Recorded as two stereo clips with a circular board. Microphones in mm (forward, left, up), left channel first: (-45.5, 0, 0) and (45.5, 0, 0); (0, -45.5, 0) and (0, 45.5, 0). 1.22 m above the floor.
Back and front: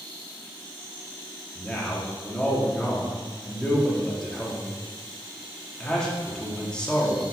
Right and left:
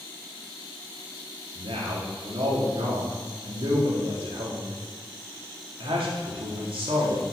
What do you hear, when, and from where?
1.6 s a man speaking: 100° left, 2 m